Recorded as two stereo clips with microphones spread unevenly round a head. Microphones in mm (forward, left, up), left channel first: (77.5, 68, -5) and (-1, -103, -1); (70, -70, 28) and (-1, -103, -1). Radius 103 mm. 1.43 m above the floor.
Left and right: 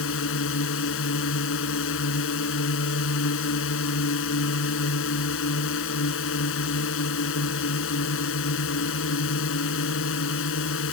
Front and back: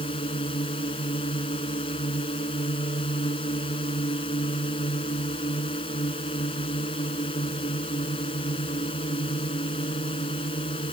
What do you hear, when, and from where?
0.0 s a drone: 55° left